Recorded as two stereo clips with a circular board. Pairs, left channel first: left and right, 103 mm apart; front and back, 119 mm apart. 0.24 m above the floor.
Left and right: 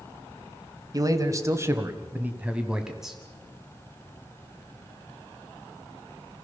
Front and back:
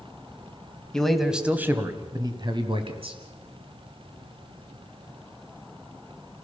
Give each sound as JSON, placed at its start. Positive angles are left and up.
{"t": 0.9, "sound": "a man speaking", "azimuth_deg": -80, "distance_m": 1.6}